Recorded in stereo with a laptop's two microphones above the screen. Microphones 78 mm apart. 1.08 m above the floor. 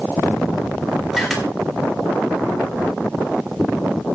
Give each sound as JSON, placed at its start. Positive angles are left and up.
{"t": 1.1, "sound": "a camera shutter", "side_deg": 0, "distance_m": 1.9}